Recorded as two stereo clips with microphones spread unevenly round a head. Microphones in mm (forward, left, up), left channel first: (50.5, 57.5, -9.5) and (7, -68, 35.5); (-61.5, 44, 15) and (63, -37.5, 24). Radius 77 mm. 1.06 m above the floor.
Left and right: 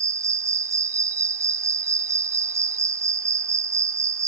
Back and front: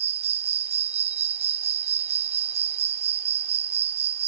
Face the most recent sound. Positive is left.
turn(degrees=-70)